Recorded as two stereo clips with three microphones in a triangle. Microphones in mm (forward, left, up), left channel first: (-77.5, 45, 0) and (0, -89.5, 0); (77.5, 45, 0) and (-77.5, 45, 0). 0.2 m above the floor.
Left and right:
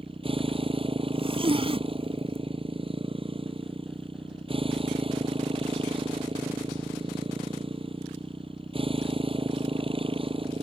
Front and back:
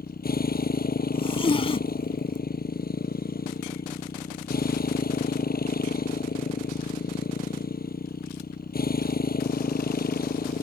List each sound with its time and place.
0.0 s a motorcycle: 5° right
1.1 s a zipper: 30° right